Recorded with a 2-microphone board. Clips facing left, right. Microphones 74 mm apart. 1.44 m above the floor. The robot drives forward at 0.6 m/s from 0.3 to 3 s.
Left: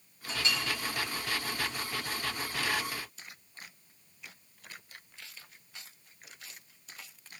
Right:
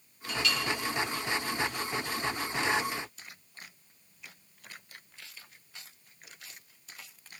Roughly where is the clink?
Left.